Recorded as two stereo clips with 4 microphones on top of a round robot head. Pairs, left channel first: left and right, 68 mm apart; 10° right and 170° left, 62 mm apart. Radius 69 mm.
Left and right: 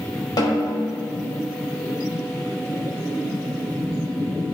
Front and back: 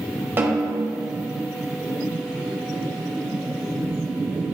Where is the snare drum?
115° left, 1.6 m.